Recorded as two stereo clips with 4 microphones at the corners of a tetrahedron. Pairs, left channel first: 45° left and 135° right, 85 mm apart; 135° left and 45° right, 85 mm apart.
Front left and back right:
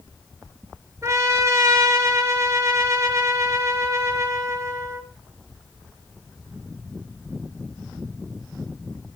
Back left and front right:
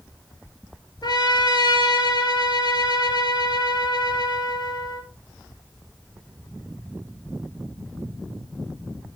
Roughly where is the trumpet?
Behind.